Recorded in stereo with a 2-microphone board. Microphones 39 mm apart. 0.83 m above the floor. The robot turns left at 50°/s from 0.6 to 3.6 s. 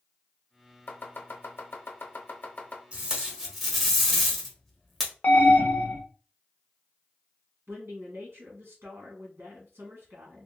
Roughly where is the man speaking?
Right.